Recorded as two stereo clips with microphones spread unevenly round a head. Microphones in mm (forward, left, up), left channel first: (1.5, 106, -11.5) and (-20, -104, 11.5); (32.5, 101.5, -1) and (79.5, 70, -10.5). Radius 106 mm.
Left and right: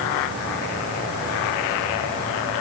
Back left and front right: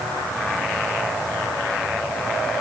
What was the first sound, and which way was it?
Only background noise.